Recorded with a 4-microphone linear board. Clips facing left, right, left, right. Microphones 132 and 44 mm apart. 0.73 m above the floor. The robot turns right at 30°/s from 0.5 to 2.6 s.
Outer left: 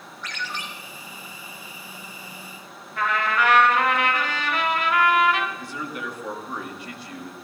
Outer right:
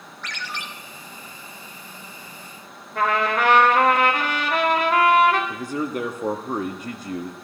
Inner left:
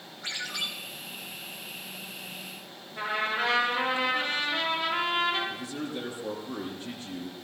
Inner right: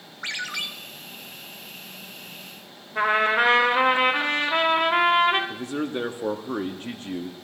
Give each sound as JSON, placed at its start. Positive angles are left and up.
{"t": 0.2, "sound": "a ringtone", "side_deg": -75, "distance_m": 1.4}
{"t": 3.0, "sound": "a trumpet", "side_deg": -70, "distance_m": 3.0}
{"t": 5.5, "sound": "a man speaking", "side_deg": -50, "distance_m": 1.0}